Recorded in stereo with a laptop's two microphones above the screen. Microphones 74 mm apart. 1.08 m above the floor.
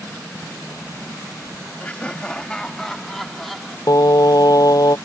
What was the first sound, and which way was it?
Laughter, 20° left (ahead or behind).